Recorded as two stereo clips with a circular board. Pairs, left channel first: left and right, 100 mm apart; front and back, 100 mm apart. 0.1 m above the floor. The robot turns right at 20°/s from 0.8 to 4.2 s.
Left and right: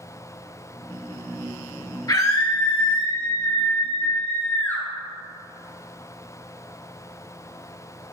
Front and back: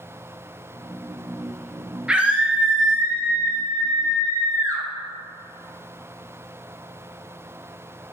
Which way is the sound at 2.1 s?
105° left.